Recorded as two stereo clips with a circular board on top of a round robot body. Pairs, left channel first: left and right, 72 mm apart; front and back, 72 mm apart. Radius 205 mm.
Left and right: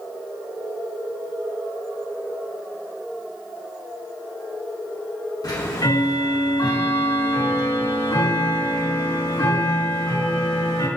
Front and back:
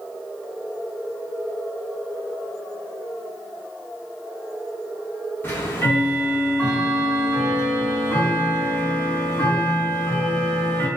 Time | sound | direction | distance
5.4 | ticking | 65° left | 4 m